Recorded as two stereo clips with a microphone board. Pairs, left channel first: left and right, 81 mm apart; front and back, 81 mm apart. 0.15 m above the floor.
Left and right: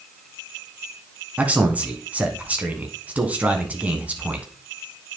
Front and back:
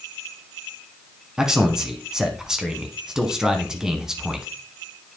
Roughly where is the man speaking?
Behind right.